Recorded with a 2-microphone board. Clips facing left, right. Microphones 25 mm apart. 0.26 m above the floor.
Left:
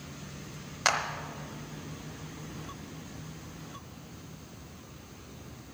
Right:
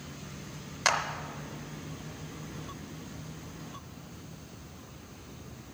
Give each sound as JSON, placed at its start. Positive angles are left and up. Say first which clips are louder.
{"t": 0.8, "sound": "a clap", "louder": "even", "side_deg": 10, "distance_m": 0.9}